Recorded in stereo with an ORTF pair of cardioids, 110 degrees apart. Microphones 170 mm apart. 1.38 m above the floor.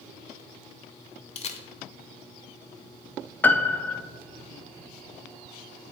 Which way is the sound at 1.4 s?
40° left.